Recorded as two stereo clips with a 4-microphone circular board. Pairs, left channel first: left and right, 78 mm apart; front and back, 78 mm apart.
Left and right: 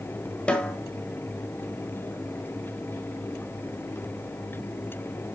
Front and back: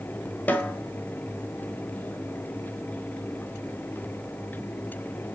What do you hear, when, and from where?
0.5 s a snare drum: 35° left, 1.5 m